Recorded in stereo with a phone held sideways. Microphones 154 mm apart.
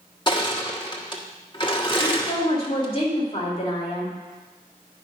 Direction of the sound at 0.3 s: 30° left (ahead or behind).